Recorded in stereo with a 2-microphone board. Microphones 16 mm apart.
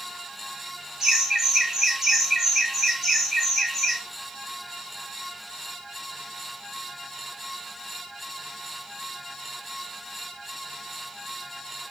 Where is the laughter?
30° right (ahead or behind), 1.2 m; by 4.0 s centre (ahead or behind), 1.4 m.